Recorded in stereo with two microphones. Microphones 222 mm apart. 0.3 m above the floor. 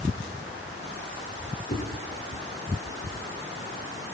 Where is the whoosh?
45° left (ahead or behind), 4 m.